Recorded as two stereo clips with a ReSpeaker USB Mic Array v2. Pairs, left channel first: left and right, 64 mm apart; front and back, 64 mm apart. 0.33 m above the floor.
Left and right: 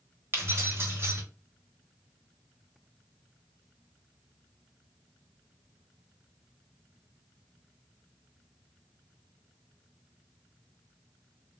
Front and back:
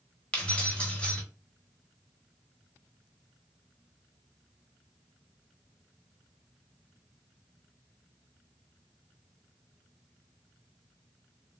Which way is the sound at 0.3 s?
65° right.